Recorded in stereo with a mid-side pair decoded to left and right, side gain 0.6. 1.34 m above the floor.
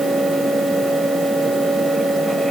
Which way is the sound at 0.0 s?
15° right.